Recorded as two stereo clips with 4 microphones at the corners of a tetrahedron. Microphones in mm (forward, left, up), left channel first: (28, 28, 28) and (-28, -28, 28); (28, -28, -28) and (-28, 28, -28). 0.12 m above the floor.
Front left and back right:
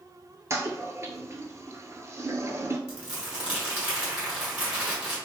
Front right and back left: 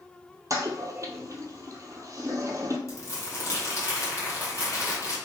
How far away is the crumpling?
About 2.0 m.